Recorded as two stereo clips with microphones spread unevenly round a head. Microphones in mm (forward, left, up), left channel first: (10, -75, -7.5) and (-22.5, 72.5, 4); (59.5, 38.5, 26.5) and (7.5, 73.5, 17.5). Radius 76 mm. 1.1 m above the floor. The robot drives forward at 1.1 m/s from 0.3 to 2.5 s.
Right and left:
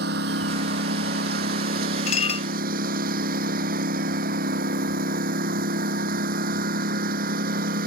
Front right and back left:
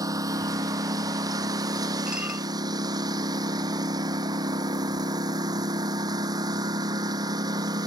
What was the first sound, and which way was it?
A lawn mower, 120° left.